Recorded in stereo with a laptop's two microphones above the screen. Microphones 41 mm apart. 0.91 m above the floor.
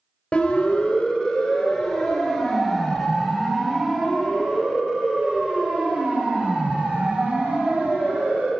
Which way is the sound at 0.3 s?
30° left (ahead or behind).